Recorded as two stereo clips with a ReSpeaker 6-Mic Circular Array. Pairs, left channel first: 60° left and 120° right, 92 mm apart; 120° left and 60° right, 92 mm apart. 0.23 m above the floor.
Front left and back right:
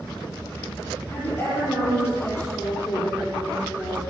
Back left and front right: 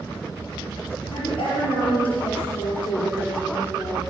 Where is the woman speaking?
125° left, 6 m.